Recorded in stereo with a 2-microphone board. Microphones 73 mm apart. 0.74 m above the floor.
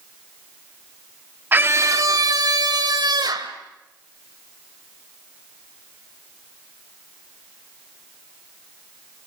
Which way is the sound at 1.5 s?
25° right (ahead or behind).